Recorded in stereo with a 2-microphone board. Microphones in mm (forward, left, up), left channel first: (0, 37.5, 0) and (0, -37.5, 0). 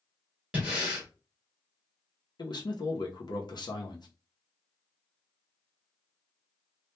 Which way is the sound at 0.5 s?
15° right (ahead or behind).